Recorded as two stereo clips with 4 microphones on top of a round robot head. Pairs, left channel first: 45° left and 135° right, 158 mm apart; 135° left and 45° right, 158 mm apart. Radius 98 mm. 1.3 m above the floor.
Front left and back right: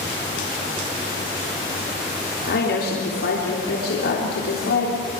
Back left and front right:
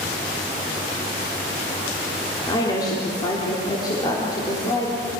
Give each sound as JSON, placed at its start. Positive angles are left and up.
{"t": 2.5, "sound": "a woman speaking", "azimuth_deg": 65, "distance_m": 3.5}